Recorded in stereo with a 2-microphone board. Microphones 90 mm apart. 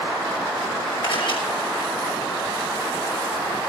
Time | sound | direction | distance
1.0 | a camera shutter | 60° left (ahead or behind) | 6 m